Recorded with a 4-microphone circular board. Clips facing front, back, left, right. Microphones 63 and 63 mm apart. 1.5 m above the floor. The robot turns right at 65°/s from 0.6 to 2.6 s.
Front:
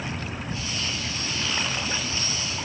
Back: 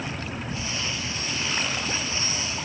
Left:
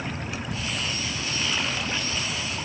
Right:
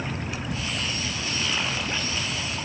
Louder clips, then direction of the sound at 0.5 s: Front 2 dB, right 3 dB; 40° left.